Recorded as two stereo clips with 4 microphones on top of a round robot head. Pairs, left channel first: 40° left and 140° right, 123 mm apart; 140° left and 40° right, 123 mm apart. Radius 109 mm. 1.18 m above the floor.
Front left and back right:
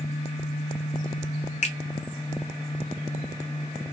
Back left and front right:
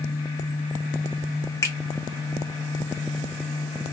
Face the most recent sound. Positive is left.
turn(degrees=70)